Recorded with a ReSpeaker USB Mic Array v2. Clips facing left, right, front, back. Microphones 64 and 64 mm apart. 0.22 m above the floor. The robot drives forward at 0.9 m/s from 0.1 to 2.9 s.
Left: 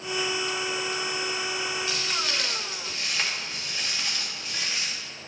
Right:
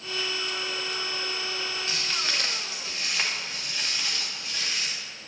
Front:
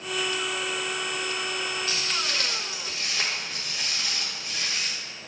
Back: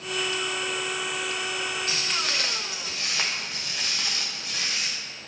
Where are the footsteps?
135° right, 1.5 m; by 5.0 s 170° left, 2.5 m.